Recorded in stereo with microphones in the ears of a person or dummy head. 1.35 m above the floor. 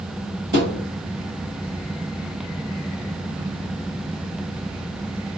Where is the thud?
30° right (ahead or behind), 1.5 m.